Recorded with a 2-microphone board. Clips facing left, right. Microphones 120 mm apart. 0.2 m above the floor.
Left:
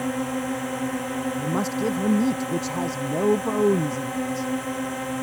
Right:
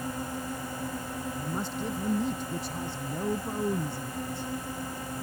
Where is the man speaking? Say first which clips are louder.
Left 9 dB; 80° left.